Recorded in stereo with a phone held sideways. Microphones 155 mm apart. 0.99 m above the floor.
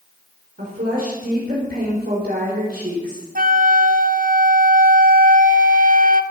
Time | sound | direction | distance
0.6 | a woman speaking | 75° right (ahead or behind) | 4 m
3.4 | a flute | 65° right (ahead or behind) | 0.8 m